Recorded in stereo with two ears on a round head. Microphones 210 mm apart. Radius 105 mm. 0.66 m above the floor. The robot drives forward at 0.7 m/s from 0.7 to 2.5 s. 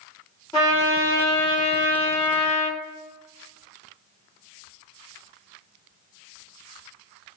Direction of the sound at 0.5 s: 15° left (ahead or behind).